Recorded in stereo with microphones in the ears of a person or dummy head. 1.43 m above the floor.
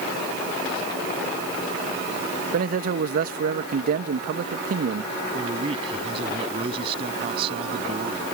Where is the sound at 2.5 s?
50° right (ahead or behind).